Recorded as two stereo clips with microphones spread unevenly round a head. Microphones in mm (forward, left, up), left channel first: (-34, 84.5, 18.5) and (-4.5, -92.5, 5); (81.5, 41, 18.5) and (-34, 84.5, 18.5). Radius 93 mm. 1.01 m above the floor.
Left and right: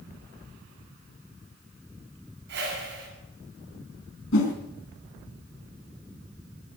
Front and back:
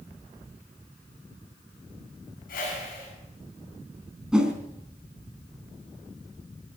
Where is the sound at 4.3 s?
75° left, 3.5 m.